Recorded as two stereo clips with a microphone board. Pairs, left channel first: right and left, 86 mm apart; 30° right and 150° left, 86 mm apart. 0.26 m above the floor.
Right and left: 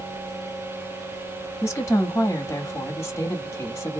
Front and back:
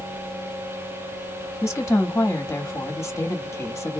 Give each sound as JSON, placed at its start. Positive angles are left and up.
{"t": 1.6, "sound": "a woman speaking", "azimuth_deg": -55, "distance_m": 1.1}